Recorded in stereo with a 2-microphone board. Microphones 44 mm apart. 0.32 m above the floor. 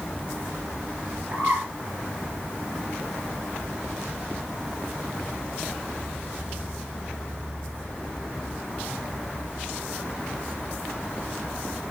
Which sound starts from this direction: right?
A bird, at 1.3 s.